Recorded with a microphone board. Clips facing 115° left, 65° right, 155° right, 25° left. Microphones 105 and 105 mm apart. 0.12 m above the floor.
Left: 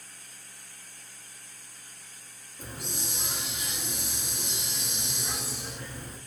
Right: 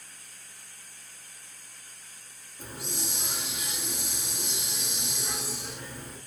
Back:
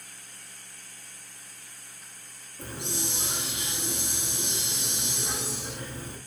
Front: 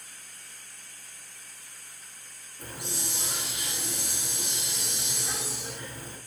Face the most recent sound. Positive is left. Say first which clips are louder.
# right 1 dB, back 3 dB
turn(degrees=-155)